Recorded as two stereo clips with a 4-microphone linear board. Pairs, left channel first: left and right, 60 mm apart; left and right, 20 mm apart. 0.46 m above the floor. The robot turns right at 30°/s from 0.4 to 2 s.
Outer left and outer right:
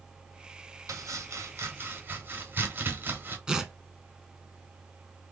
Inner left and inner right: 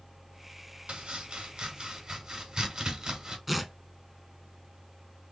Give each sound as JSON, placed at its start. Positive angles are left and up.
{"t": 0.9, "sound": "chopping", "side_deg": -65, "distance_m": 1.2}
{"t": 3.5, "sound": "tearing paper", "side_deg": -15, "distance_m": 0.8}